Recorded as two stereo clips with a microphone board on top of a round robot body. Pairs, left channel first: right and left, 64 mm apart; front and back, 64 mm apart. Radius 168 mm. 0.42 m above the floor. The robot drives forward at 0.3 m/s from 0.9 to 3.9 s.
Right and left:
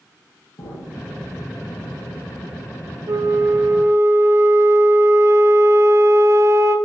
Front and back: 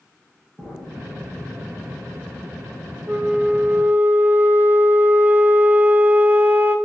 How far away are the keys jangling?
I don't hear keys jangling.